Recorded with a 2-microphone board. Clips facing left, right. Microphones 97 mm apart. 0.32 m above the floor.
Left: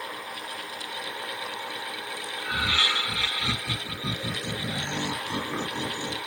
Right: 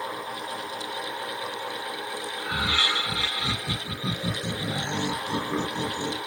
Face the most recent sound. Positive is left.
turn(degrees=-20)  # may be behind; listen again after turning